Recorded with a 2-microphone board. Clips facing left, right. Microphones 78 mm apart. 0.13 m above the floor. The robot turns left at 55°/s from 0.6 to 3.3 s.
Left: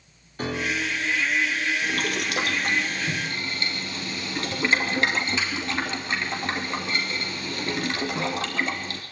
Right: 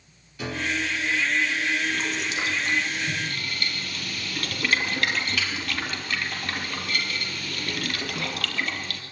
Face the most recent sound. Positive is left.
turn(degrees=25)  # may be behind; listen again after turning